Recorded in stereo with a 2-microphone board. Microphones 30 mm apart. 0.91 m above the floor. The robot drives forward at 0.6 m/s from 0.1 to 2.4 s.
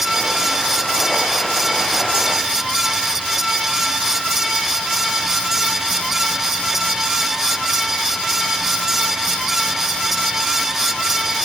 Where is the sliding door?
No sliding door in this recording.